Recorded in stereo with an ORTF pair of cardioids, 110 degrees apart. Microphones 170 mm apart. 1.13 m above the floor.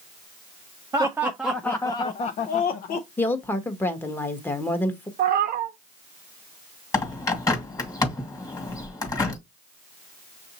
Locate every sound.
0.9 s laughter: 20° right, 0.7 m; by 3.1 s 65° left, 0.8 m
3.2 s a woman speaking: 15° left, 1.2 m
5.2 s a cat meowing: 70° right, 0.8 m
6.9 s a bird: 20° left, 1.8 m